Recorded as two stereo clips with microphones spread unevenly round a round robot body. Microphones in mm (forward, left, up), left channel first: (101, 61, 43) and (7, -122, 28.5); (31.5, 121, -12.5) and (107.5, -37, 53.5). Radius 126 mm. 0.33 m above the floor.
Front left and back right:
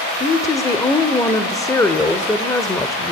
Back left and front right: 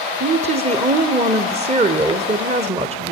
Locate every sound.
0.2 s a woman speaking: 5° right, 1.2 m